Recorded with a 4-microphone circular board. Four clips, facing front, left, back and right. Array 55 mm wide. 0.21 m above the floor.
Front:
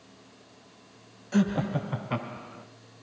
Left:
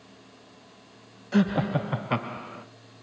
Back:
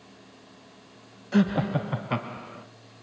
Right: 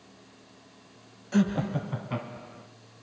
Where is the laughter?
130° left, 1.0 m; by 2.6 s 105° left, 1.7 m.